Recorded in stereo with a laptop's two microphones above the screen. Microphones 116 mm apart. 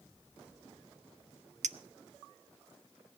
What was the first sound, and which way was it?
A clink, 80° right.